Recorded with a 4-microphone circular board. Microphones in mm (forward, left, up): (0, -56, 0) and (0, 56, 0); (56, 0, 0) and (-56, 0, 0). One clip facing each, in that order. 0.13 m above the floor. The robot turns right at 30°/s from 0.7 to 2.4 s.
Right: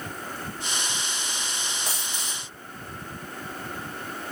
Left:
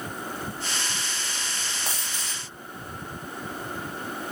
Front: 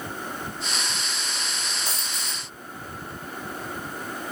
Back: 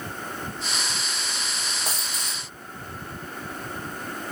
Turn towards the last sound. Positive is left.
turn(degrees=170)